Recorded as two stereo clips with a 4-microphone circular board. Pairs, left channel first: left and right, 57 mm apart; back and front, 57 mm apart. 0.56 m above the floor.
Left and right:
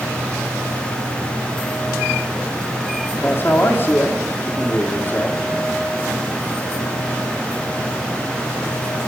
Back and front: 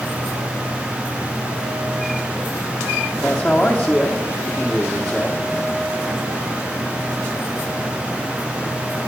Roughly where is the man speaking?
Left.